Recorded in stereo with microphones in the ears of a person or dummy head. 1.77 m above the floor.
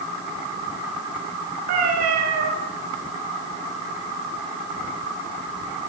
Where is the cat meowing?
50° right (ahead or behind), 5.5 m.